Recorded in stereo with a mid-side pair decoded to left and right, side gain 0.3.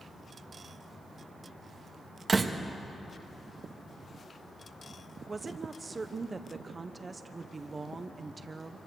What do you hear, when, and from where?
2.3 s a door slam: 45° right, 1.5 m
5.3 s a woman speaking: 40° right, 1.0 m